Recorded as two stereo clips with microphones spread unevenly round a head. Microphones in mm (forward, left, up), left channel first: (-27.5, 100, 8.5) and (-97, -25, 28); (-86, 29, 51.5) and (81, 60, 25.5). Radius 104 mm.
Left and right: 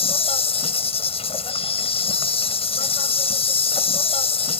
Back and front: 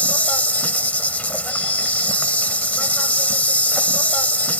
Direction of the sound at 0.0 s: 110° left.